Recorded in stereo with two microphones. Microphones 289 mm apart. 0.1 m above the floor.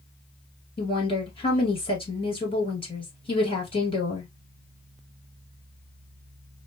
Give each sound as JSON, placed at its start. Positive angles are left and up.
{"t": 0.8, "sound": "a woman speaking", "side_deg": 20, "distance_m": 2.0}